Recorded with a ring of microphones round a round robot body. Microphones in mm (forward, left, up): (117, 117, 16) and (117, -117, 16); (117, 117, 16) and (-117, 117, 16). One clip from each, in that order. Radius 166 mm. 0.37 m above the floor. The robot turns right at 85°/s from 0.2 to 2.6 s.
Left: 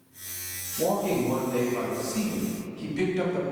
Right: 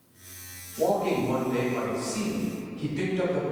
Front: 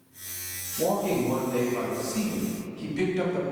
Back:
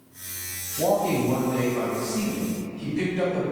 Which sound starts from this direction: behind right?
A man speaking, at 0.8 s.